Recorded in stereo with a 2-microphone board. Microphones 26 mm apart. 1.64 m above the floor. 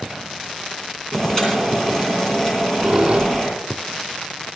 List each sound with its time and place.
1.1 s boiling: 20° left (ahead or behind), 9 m
2.5 s a squeak: 30° right (ahead or behind), 2.5 m